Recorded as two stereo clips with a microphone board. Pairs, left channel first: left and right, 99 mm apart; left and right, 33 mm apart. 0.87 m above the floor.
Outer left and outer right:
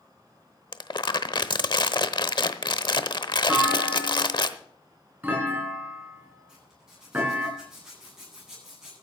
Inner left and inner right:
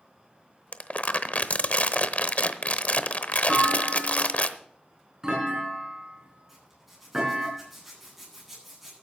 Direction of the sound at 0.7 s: 55° left (ahead or behind).